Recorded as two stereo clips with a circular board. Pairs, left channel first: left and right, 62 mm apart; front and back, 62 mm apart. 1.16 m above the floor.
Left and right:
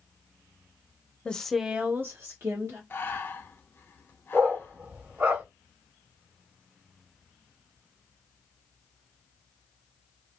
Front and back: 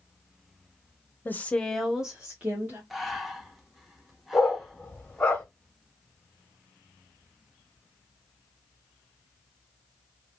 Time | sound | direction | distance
1.2 | a woman speaking | 25° left | 0.6 m
2.9 | breathing | 95° left | 0.6 m
4.3 | a dog barking | 50° right | 0.9 m